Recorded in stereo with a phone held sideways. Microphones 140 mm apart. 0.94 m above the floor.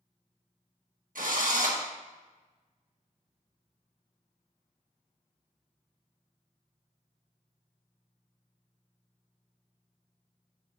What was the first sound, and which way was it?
A drill, 75° right (ahead or behind).